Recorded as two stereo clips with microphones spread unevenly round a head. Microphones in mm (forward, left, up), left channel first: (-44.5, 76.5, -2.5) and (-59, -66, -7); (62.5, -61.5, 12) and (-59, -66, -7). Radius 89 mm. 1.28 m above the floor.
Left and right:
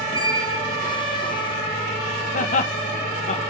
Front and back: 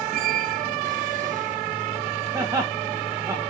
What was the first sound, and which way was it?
A squeak, 140° left.